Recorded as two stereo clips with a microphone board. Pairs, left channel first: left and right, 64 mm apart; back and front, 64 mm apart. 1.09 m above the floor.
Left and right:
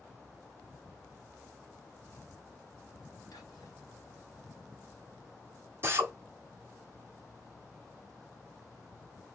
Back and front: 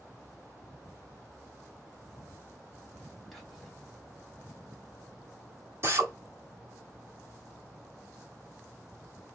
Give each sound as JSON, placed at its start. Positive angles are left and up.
{"t": 3.3, "sound": "whispering", "azimuth_deg": 90, "distance_m": 1.8}
{"t": 5.8, "sound": "a drill", "azimuth_deg": -45, "distance_m": 1.1}